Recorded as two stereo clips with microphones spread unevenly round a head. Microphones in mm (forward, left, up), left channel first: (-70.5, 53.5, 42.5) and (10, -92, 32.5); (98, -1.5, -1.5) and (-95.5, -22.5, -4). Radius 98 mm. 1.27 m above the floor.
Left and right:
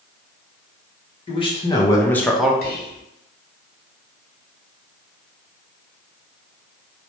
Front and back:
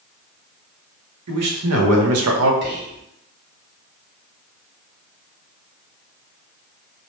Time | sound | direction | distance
1.3 | a man speaking | 175° left | 1.0 m
2.6 | whispering | 150° left | 0.9 m